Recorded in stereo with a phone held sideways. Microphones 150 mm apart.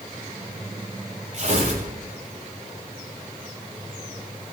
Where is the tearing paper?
55° right (ahead or behind), 10 m.